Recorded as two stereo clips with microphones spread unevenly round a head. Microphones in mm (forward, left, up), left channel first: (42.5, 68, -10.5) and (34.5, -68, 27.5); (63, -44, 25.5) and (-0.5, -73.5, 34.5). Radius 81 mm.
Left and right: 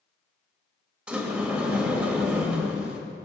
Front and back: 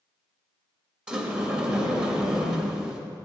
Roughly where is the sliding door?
Right.